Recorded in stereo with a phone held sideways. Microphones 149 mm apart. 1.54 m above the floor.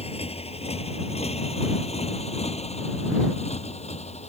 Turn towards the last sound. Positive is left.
turn(degrees=50)  # may be behind; listen again after turning